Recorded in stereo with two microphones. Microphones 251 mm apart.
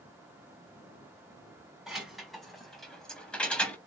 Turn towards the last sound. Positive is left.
turn(degrees=5)  # may be behind; listen again after turning